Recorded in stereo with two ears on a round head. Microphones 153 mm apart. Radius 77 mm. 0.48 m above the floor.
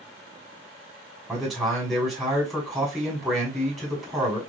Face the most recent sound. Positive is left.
turn(degrees=-5)  # may be behind; listen again after turning